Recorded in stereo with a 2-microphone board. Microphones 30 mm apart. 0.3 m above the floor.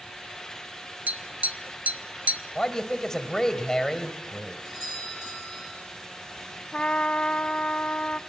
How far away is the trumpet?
About 0.6 m.